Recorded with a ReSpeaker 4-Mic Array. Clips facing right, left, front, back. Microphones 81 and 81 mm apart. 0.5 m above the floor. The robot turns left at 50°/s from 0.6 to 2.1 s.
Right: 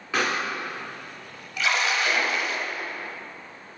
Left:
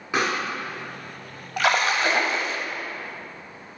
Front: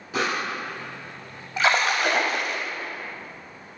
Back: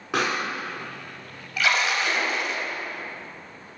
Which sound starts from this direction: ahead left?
A splash, at 1.6 s.